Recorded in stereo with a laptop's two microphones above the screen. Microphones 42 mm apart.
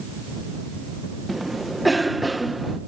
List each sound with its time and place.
1.3 s a cough: centre (ahead or behind)